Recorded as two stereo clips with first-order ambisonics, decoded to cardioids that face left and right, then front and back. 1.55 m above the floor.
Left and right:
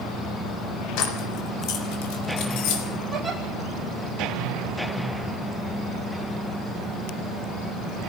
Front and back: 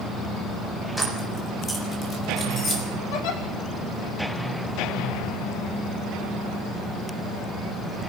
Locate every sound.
1.0 s keys jangling: 80° left, 4.5 m; by 2.8 s 65° left, 5.5 m
3.1 s a giggle: 10° right, 5 m